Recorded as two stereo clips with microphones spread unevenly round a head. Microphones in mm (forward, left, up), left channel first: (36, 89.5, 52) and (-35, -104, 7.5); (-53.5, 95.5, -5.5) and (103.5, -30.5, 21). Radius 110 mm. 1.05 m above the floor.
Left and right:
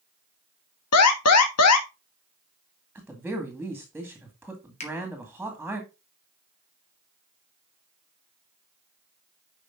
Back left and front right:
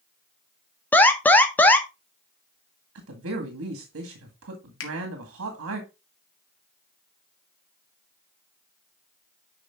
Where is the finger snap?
130° left, 2 m.